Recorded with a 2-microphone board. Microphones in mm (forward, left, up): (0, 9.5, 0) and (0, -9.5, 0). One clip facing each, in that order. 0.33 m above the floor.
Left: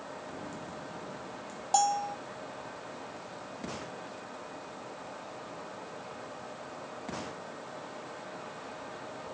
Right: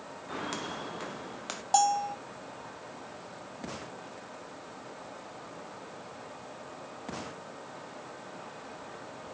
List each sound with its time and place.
0.3 s footsteps: 85° right
1.7 s a bell: 10° right (ahead or behind)